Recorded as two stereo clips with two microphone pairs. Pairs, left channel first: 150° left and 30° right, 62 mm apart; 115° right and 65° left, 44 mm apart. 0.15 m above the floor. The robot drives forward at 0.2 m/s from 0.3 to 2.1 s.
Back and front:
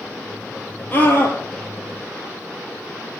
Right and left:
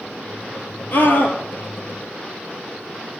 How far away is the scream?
About 3 m.